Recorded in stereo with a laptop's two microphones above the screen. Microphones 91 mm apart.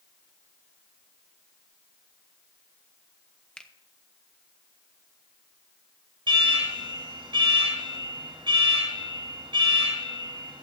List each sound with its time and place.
3.6 s a finger snap: 10° left (ahead or behind), 1.3 m
6.3 s an alarm: 65° right (ahead or behind), 7 m